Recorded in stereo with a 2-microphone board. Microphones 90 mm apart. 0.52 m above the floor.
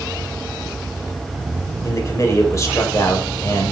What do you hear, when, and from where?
1.8 s a man speaking: 35° left (ahead or behind), 2.5 m